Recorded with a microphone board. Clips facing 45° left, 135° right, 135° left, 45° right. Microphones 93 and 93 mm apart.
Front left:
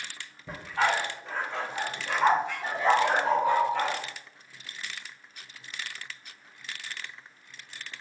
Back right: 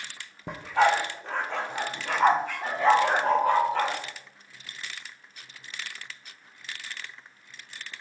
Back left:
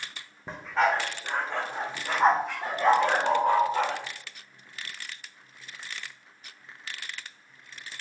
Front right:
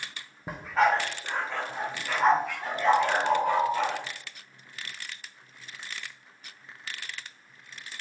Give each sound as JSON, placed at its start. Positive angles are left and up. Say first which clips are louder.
{"t": 0.5, "sound": "a dog barking", "louder": "back right 5 dB, front right 1 dB", "azimuth_deg": -125, "distance_m": 1.6}
{"t": 2.9, "sound": "a bird", "louder": "back right 2 dB, even", "azimuth_deg": -150, "distance_m": 4.0}